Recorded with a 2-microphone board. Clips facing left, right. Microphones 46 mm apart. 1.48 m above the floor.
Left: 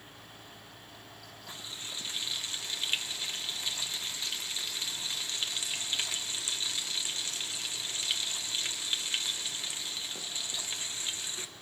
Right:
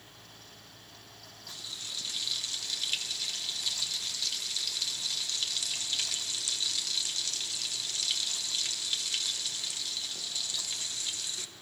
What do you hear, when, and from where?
1.5 s frying: 25° left (ahead or behind), 1.4 m